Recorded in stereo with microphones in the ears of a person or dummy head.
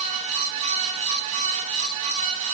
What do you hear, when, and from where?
Only background noise.